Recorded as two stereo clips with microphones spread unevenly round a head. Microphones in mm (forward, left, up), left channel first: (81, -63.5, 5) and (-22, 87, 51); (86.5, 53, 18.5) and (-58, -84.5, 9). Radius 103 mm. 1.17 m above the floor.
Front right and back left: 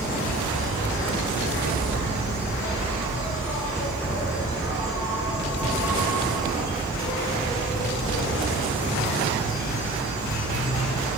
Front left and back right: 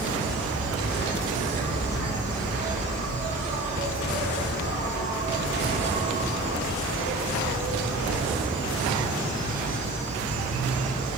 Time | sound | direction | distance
0.0 | an insect | 90° right | 1.2 m